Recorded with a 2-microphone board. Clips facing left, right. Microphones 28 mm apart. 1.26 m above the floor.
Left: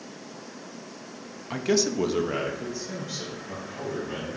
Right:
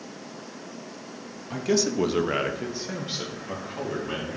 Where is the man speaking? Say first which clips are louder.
Even; 25° left (ahead or behind), 0.6 m; by 4.4 s 55° right (ahead or behind), 2 m.